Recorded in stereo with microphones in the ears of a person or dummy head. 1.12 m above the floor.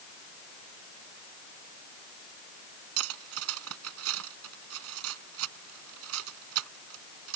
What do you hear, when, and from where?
3.0 s cutlery clinking: 75° right (ahead or behind)